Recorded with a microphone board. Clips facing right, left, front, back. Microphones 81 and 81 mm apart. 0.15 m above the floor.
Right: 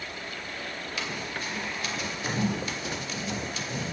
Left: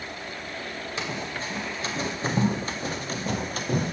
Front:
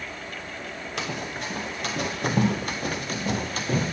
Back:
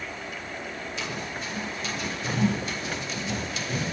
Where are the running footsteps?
25° left, 3.5 m; by 3.9 s 50° left, 2 m.